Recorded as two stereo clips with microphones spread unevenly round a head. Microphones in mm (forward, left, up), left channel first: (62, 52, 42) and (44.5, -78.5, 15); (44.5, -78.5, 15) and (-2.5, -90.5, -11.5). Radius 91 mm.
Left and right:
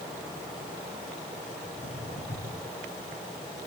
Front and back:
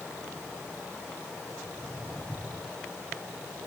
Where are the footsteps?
95° left, 7.5 m.